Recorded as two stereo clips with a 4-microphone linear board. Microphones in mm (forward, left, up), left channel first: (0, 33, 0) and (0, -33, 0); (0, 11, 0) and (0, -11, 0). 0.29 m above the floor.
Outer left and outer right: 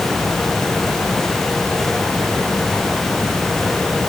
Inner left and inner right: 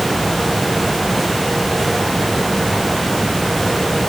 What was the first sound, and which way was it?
Only background noise.